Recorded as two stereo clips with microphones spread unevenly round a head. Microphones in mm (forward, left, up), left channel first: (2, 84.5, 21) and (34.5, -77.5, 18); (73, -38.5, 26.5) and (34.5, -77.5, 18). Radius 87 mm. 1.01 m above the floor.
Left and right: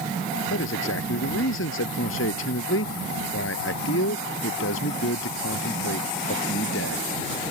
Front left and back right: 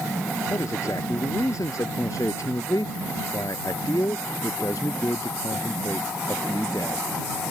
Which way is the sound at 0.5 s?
110° left.